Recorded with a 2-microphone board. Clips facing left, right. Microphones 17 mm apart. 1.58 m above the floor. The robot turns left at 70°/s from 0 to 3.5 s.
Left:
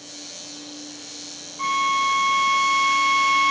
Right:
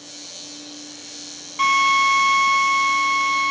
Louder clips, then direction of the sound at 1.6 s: Right 5 dB; 115° right.